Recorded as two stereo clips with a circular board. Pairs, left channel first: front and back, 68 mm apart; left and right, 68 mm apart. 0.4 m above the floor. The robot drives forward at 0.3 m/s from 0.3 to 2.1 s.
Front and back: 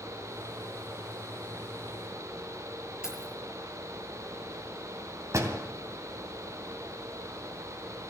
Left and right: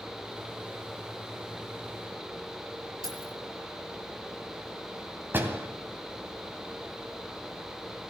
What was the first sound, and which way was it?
Keys jangling, 100° right.